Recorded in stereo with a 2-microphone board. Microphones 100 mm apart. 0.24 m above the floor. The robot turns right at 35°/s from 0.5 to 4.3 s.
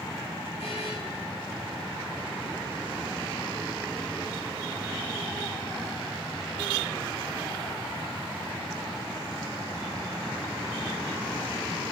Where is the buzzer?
70° left (ahead or behind), 8 m; by 0.9 s 85° left, 8 m.